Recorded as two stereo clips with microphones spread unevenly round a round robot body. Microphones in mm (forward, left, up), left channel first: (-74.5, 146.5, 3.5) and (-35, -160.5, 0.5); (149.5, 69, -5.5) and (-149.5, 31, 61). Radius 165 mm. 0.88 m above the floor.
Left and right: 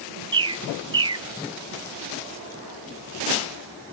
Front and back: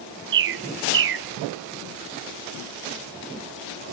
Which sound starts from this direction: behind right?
A bird, at 0.3 s.